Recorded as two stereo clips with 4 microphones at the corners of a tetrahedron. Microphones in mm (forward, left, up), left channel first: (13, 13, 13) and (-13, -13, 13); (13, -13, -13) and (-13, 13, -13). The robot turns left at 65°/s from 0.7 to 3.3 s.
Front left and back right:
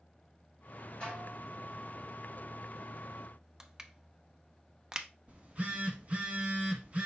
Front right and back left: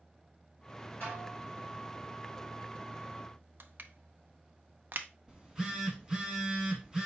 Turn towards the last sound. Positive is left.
turn(degrees=-160)